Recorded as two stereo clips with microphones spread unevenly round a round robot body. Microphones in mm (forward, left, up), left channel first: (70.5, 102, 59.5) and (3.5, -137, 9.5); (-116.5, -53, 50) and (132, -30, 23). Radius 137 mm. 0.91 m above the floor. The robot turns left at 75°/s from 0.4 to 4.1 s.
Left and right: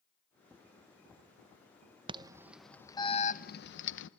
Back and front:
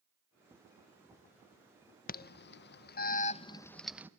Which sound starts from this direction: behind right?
An alarm, at 2.1 s.